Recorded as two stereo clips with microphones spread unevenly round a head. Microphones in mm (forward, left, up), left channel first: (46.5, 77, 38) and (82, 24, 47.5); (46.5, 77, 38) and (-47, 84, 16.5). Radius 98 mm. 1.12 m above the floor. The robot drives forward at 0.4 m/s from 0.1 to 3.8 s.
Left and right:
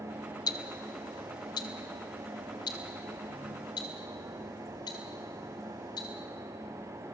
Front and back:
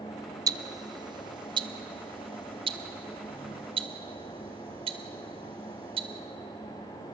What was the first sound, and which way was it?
Ticking, 120° left.